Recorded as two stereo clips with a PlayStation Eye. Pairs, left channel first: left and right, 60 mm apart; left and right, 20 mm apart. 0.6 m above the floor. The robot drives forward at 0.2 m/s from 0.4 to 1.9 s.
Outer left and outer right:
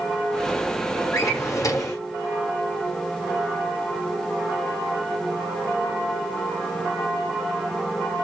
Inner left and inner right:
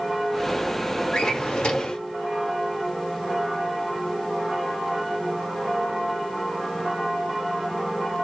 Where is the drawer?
55° left (ahead or behind), 1.1 m; by 2.0 s 60° left (ahead or behind), 1.0 m.